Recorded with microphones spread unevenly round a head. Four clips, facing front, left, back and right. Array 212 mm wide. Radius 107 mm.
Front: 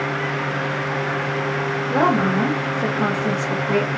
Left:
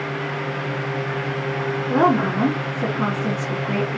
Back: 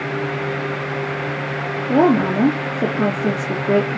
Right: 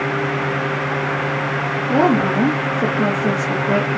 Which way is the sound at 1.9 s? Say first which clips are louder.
Right 2 dB, back 4 dB; 155° right.